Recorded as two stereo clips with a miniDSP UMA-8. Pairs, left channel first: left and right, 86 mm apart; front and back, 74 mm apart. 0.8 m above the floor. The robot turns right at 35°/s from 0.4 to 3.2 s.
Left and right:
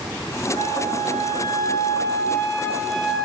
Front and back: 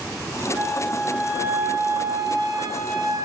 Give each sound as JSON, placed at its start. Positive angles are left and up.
{"t": 0.5, "sound": "a flute", "azimuth_deg": 85, "distance_m": 3.0}